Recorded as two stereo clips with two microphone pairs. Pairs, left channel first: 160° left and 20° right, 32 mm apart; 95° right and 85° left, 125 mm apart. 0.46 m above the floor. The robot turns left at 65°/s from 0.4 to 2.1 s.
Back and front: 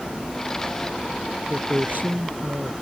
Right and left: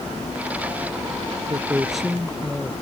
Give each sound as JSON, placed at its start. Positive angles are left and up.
{"t": 1.5, "sound": "a man speaking", "azimuth_deg": 25}